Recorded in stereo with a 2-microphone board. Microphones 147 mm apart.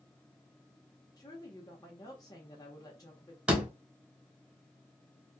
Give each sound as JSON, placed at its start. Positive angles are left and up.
{"t": 1.2, "sound": "a woman speaking", "side_deg": 25, "distance_m": 1.1}
{"t": 3.5, "sound": "a door slam", "side_deg": -10, "distance_m": 1.1}